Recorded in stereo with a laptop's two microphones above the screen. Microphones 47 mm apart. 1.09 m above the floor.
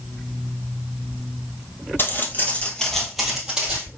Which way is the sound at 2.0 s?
50° left (ahead or behind).